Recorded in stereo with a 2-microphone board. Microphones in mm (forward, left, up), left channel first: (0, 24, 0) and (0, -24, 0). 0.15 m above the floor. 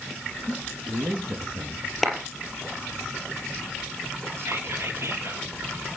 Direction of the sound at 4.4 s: 55° right (ahead or behind).